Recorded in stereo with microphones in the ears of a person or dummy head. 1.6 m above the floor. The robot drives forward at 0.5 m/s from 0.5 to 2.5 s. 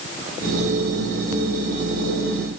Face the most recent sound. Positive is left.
No sound to turn to.